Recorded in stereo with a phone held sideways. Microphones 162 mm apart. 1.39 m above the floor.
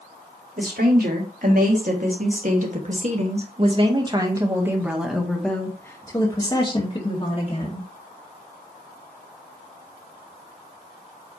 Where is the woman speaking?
70° right (ahead or behind), 3.5 m; by 7.9 s 45° left (ahead or behind), 3 m.